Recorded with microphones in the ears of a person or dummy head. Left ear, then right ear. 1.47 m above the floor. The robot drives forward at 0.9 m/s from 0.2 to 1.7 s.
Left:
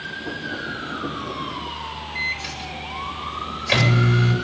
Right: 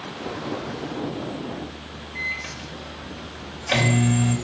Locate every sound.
2.1 s a microwave: 30° right (ahead or behind), 2.5 m